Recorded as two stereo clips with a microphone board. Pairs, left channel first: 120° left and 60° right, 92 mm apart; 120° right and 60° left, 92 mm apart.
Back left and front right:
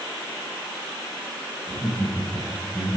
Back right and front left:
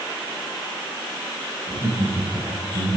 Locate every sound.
1.7 s laughter: 40° left, 6 m; by 3.0 s 45° left, 6.5 m